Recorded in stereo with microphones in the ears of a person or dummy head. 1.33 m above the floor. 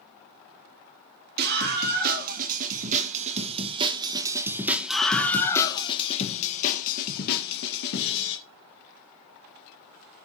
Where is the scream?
50° right (ahead or behind), 2.5 m; by 8.4 s 65° left (ahead or behind), 2.5 m.